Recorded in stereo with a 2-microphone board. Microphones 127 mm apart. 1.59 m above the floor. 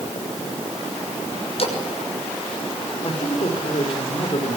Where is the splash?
50° left (ahead or behind), 6 m.